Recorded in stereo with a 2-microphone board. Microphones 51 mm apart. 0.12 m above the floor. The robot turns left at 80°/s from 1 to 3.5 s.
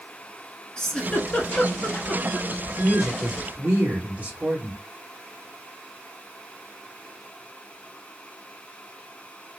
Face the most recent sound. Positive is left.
turn(degrees=-45)